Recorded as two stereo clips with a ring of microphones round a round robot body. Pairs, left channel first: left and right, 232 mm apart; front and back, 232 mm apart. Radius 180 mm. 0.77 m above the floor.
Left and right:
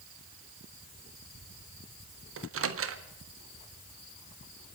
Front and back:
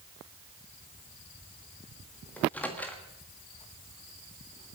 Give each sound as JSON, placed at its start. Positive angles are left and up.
{"t": 2.4, "sound": "a microwave", "azimuth_deg": -85, "distance_m": 1.4}